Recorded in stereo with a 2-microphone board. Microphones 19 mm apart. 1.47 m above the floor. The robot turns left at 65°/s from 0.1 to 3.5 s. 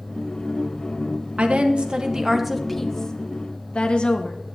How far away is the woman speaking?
About 1.3 m.